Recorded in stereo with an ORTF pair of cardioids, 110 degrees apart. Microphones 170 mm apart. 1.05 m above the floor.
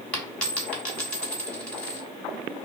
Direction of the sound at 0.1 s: 5° left.